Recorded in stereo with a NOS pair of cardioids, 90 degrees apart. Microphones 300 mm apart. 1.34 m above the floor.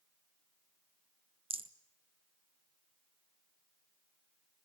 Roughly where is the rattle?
Ahead.